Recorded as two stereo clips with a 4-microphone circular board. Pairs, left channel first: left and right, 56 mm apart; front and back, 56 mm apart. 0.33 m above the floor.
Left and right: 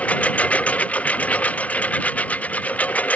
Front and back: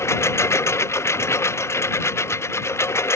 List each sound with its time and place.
0.0 s a lawn mower: 30° left